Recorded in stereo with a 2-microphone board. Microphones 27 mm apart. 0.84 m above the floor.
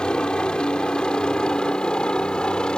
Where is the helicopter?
30° left (ahead or behind).